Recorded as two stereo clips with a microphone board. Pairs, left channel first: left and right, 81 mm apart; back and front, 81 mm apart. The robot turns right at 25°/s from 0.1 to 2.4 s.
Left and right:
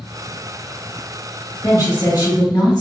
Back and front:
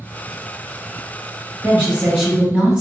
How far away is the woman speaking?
About 1.9 m.